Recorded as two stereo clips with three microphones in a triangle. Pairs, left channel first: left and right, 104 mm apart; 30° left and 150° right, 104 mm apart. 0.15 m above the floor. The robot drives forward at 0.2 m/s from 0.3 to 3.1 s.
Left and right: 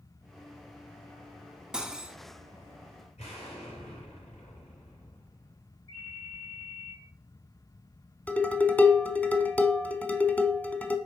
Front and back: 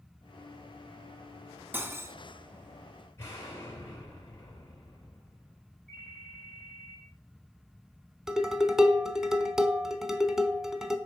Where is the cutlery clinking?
160° right, 0.6 m; by 2.2 s 165° right, 0.6 m.